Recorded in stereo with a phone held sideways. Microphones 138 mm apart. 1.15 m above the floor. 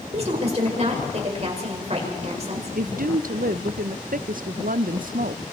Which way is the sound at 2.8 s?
75° right (ahead or behind).